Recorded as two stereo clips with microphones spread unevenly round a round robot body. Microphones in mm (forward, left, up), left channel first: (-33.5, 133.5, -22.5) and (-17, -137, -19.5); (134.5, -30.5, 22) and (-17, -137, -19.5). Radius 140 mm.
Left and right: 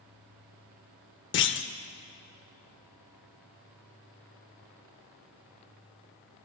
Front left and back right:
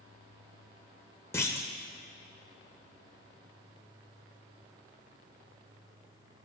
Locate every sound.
1.3 s a clunk: 90° left, 0.6 m